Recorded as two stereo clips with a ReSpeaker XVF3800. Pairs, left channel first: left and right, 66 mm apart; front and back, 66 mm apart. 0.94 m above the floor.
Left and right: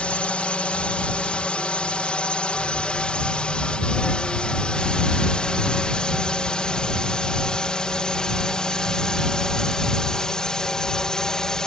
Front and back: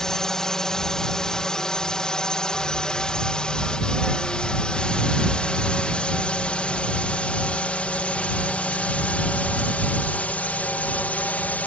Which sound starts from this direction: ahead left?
A drone, at 0.0 s.